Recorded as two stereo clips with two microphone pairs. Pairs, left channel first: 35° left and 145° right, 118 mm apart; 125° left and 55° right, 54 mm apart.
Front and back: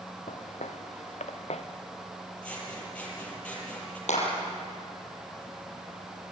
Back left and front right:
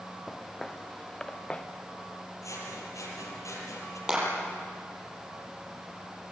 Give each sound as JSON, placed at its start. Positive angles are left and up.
{"t": 0.3, "sound": "footsteps", "azimuth_deg": 40, "distance_m": 2.5}
{"t": 2.4, "sound": "scissors", "azimuth_deg": 110, "distance_m": 8.0}
{"t": 4.1, "sound": "a clap", "azimuth_deg": 20, "distance_m": 7.5}